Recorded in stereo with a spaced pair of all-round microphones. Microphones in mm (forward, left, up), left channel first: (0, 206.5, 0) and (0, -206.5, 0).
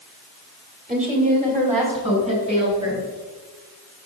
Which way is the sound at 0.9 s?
20° right (ahead or behind).